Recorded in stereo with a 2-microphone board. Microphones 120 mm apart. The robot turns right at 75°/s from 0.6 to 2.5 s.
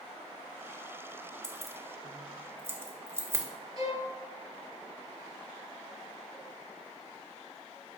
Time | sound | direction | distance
1.4 | keys jangling | 5° left (ahead or behind) | 0.5 m
3.8 | a violin | 30° right (ahead or behind) | 1.1 m